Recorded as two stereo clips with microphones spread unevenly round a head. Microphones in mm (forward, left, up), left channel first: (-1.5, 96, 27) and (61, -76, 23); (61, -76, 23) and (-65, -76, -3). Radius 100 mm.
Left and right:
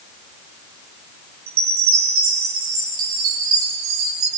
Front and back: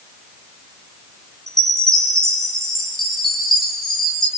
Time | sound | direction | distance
1.5 | a chime | 85° right | 8.5 m